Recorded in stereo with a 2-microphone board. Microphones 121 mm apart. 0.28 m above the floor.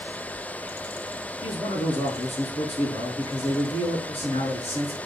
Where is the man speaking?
65° left (ahead or behind), 3 m.